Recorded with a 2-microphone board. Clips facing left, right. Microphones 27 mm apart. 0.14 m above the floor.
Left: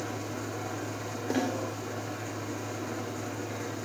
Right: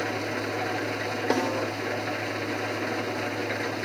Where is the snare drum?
60° right (ahead or behind), 5.5 m.